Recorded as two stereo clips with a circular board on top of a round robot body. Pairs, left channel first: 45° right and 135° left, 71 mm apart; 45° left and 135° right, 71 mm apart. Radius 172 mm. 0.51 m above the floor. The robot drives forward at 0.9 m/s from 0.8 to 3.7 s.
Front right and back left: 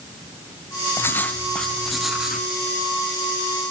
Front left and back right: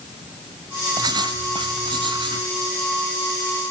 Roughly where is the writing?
Right.